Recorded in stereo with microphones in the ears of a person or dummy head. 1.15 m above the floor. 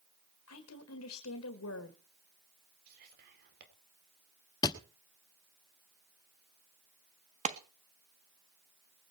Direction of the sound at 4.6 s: 20° left (ahead or behind).